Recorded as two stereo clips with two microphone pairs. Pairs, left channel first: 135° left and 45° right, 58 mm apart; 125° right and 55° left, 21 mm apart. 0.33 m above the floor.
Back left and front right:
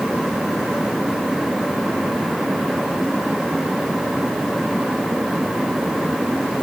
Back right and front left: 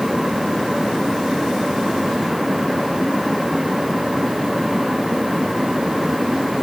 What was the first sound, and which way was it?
Only background noise.